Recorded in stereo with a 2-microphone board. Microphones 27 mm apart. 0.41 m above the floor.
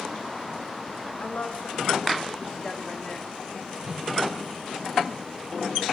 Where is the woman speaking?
60° left (ahead or behind), 4 m; by 3.3 s 15° left (ahead or behind), 3 m.